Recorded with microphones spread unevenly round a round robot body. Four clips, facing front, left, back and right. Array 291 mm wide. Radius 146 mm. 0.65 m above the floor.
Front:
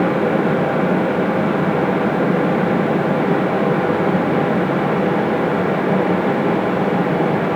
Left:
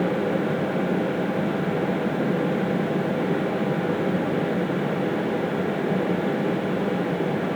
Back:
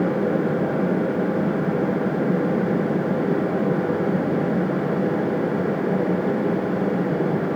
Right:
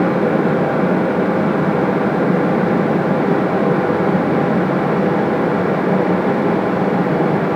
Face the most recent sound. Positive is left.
No sound to turn to.